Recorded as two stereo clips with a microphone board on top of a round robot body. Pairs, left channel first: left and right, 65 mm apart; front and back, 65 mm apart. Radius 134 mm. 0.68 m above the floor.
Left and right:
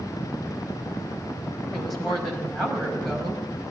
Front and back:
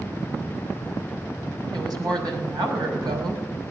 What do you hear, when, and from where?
1.7 s a woman speaking: 175° left, 5 m